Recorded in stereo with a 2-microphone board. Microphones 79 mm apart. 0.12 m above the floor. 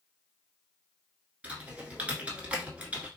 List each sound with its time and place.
1.4 s typing on a keyboard: 20° right (ahead or behind), 0.9 m